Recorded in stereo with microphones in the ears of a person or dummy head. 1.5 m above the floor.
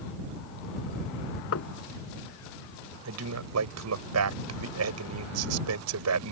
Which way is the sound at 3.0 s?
85° right.